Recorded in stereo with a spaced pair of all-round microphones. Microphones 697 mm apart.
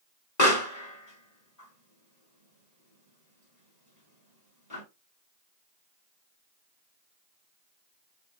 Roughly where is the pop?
Left.